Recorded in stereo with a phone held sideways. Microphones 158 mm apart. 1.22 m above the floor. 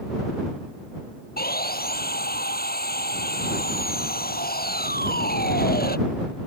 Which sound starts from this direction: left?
Sawing, at 1.4 s.